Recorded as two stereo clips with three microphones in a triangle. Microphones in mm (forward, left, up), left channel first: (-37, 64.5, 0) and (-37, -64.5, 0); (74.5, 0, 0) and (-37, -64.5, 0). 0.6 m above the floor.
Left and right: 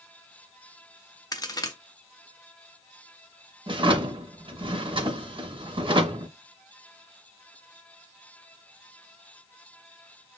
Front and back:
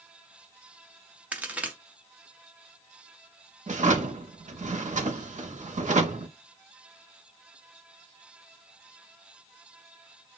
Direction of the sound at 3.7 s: 140° right.